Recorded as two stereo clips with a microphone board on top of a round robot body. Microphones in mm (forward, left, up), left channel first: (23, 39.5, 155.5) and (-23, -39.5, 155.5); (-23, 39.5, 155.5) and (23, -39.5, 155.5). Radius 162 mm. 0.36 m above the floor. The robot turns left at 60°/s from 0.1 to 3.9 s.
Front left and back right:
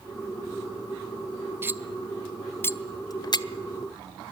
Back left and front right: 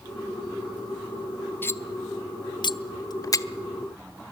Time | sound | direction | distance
1.6 | cutlery clinking | straight behind | 0.9 m